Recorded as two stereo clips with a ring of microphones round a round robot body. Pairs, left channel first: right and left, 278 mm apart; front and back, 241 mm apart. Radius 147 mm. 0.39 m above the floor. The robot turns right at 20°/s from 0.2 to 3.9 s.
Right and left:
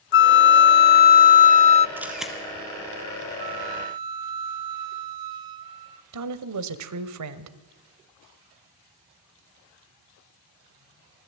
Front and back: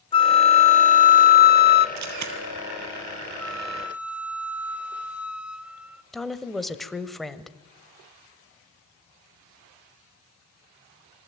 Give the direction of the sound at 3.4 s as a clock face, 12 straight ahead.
9 o'clock.